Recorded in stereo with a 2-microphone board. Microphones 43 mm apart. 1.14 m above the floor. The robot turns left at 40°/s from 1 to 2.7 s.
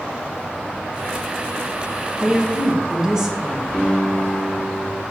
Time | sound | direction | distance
2.2 | a woman speaking | centre (ahead or behind) | 1.1 m
3.7 | a piano | 5° left (ahead or behind) | 1.4 m